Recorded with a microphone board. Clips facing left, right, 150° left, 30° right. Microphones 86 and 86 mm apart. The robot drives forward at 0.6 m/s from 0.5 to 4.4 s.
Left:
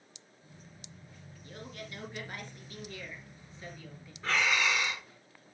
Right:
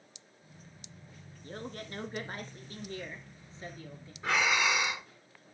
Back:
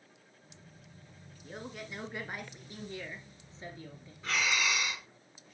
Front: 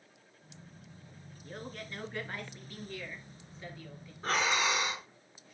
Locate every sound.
1.4 s a man speaking: 120° right, 2.5 m; by 4.1 s 150° right, 3.5 m
4.2 s breathing: 20° right, 0.5 m; by 5.1 s 30° right, 0.5 m